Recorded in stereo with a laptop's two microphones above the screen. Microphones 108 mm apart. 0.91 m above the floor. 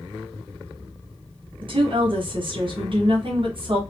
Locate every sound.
1.6 s a woman speaking: 50° right (ahead or behind), 1.1 m